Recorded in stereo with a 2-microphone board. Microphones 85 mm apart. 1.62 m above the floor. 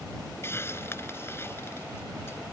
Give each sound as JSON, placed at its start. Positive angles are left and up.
{"t": 0.4, "sound": "a hiss", "side_deg": 30}